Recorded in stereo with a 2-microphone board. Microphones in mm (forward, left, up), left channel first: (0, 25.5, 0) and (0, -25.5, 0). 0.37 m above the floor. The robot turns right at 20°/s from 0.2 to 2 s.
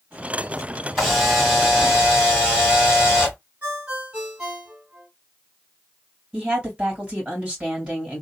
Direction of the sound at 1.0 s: Centre (ahead or behind).